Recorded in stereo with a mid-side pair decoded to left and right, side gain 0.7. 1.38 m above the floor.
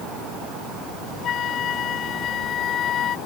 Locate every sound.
1.2 s a flute: 40° left